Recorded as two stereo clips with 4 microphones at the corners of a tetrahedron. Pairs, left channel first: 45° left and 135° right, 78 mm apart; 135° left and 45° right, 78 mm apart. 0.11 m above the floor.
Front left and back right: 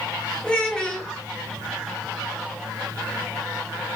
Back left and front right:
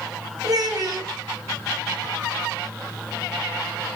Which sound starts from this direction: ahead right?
A child speaking, at 0.4 s.